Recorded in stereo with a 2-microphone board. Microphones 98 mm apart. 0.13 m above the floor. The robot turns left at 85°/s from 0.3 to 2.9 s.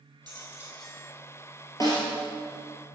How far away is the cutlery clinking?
About 2.5 m.